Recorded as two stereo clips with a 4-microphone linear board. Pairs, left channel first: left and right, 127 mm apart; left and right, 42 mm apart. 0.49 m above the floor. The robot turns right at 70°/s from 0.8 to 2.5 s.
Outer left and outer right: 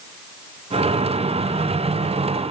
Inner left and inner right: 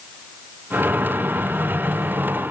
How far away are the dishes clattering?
No dishes clattering in this recording.